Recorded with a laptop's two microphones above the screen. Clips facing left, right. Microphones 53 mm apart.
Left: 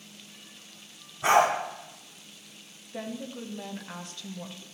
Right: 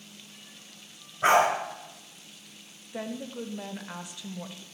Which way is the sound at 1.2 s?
45° right (ahead or behind).